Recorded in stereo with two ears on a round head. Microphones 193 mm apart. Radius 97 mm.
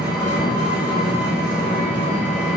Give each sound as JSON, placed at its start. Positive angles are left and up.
{"t": 0.0, "sound": "an engine running", "side_deg": -5, "distance_m": 1.0}